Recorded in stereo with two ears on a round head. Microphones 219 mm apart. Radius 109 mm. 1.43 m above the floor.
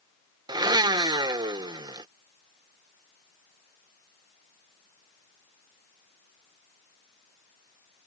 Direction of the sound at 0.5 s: 15° right (ahead or behind).